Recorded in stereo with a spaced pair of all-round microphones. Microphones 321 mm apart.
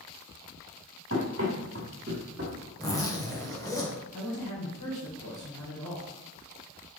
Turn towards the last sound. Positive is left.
turn(degrees=65)  # may be behind; listen again after turning